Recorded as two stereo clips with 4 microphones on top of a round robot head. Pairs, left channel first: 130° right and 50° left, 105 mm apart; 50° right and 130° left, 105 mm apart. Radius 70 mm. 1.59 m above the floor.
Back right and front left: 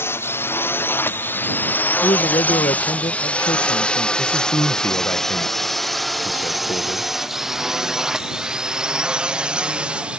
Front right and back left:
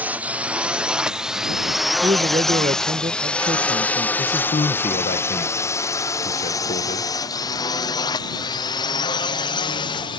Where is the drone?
170° right; by 10.2 s 25° right.